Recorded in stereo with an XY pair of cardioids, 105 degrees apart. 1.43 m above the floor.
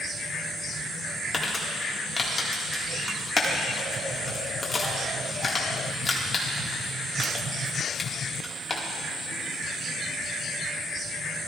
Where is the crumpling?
35° left, 1.8 m.